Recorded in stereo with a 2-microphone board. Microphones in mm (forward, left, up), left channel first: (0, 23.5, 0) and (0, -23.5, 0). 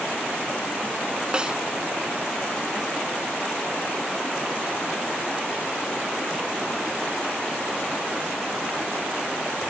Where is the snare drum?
25° right (ahead or behind).